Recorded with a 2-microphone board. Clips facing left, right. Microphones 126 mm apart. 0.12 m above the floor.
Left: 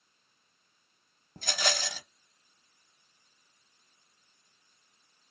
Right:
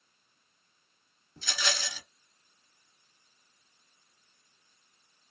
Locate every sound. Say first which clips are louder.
1.4 s a rattle: left 3 dB; 55° left (ahead or behind), 0.8 m